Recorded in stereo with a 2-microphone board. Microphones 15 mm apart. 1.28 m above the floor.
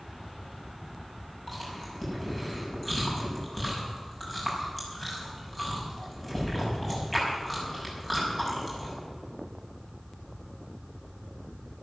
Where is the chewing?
10° left (ahead or behind), 6 m.